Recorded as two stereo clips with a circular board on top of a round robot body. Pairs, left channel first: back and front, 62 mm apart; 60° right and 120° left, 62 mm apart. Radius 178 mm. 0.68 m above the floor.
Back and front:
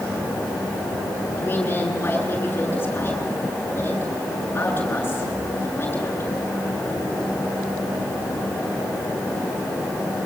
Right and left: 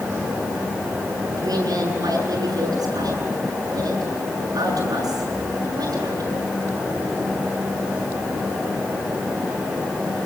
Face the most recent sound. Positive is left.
turn(degrees=125)